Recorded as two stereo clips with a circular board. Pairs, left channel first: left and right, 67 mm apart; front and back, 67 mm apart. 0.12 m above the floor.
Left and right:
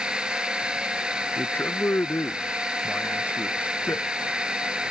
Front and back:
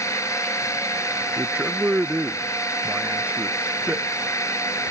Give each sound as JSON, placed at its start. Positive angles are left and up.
{"t": 0.0, "sound": "a drone", "azimuth_deg": -20}
{"t": 1.4, "sound": "a man speaking", "azimuth_deg": 125}